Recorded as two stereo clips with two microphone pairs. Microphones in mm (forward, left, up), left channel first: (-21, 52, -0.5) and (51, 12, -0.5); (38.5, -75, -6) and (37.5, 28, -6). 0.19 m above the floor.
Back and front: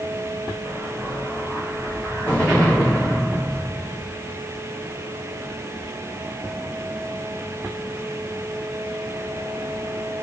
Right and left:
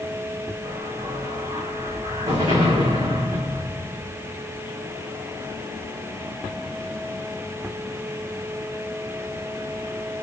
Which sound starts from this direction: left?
An explosion, at 0.6 s.